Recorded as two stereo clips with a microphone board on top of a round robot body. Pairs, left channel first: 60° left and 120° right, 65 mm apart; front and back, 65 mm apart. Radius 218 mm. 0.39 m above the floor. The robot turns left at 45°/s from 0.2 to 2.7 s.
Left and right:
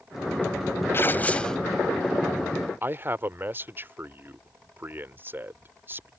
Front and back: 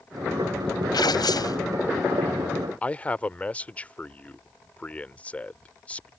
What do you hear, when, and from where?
0.9 s tearing paper: 5° left; by 1.6 s 25° right
2.8 s a man speaking: 65° right